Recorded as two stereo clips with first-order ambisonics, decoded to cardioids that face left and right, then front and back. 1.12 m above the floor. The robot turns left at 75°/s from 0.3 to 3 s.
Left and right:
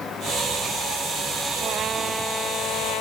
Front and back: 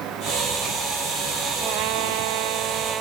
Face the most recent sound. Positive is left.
turn(degrees=120)